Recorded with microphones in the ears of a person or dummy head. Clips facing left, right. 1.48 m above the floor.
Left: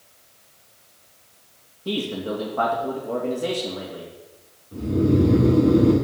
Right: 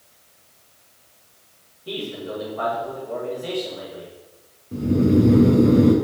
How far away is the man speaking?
About 3 m.